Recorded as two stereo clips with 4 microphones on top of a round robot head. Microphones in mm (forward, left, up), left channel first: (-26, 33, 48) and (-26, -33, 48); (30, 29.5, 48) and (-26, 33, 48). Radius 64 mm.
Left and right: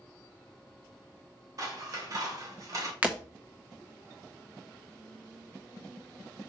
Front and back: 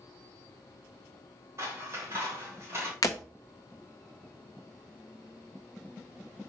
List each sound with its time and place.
1.6 s scissors: 130° right, 1.8 m
3.0 s breaking glass: 15° right, 0.6 m